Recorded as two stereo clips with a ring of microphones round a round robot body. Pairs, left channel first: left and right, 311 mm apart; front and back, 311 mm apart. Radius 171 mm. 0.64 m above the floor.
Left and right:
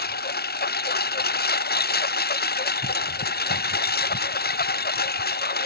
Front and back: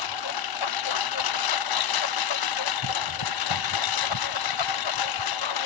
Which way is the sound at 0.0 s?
30° left.